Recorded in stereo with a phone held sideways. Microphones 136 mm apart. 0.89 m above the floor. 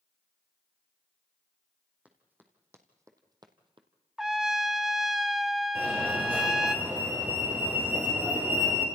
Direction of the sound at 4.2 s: Centre (ahead or behind).